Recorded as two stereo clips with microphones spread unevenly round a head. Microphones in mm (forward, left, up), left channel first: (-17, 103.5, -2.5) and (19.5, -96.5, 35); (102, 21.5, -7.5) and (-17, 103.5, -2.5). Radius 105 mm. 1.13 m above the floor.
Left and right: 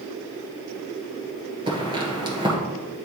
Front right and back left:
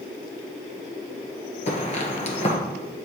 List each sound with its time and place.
1.7 s footsteps: 35° right, 1.4 m